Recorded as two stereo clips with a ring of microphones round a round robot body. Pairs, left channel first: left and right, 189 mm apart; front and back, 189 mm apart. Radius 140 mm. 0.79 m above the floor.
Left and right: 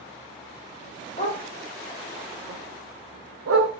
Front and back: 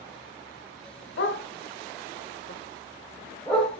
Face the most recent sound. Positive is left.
turn(degrees=-90)